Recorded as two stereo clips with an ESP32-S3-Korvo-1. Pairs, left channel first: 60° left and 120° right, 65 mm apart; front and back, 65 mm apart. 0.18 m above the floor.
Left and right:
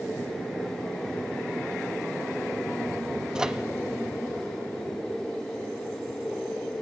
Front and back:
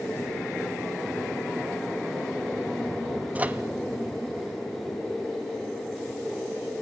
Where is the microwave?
175° left, 1.1 m.